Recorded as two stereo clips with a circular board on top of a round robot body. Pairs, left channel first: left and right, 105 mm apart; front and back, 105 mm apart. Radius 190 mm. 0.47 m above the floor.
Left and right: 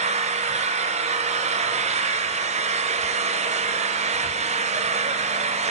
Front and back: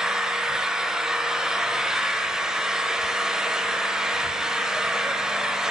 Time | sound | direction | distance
0.0 | an engine running | 95° right | 0.9 m